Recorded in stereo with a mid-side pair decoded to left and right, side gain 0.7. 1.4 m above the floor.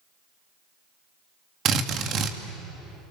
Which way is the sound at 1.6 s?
45° right.